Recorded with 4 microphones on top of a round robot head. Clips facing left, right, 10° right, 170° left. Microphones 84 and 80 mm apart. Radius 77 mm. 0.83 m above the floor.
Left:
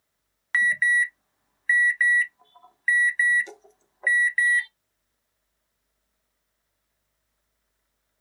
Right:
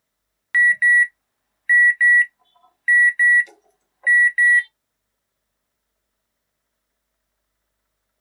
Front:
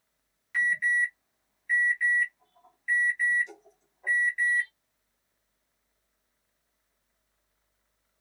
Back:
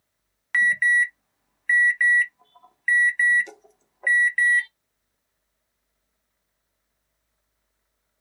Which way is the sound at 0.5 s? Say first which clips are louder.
Right 6 dB, back 6 dB; 155° left.